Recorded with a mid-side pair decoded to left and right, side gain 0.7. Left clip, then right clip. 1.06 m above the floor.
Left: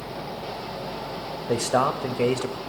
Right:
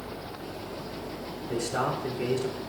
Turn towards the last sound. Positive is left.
turn(degrees=60)